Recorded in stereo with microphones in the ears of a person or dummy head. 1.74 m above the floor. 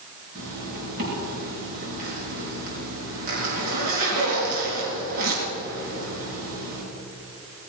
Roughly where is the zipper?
Right.